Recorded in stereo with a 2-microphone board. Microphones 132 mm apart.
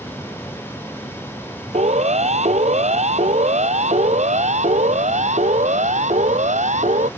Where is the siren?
55° right (ahead or behind); by 7.1 s 60° right (ahead or behind).